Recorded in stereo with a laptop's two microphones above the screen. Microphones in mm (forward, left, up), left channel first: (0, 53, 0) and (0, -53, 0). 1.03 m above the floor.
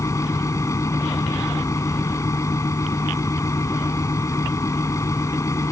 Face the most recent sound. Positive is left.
turn(degrees=30)  # may be behind; listen again after turning